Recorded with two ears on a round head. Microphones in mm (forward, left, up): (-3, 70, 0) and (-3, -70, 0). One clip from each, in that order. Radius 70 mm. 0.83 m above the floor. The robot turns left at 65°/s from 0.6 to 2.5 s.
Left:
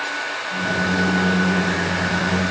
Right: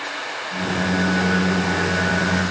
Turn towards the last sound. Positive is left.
No sound to turn to.